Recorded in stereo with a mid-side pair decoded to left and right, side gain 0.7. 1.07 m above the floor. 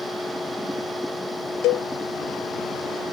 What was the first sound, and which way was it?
A machine running, 5° left.